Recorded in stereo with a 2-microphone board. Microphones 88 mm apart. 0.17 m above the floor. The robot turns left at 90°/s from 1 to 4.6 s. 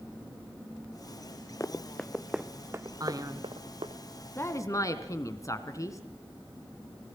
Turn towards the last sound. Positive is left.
turn(degrees=120)